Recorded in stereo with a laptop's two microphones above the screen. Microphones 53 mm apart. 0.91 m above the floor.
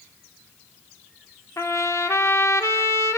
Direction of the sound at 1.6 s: 65° left (ahead or behind).